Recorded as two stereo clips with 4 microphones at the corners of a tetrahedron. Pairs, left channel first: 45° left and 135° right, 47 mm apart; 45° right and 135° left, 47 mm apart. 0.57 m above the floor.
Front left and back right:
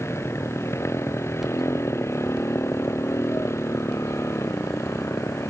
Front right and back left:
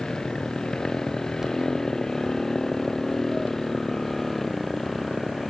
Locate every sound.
0.0 s a motorcycle: 30° left; by 5.5 s 40° left